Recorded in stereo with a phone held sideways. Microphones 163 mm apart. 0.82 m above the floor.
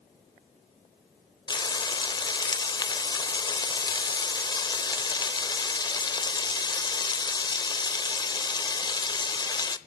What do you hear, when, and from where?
1.5 s frying: 25° left (ahead or behind), 0.7 m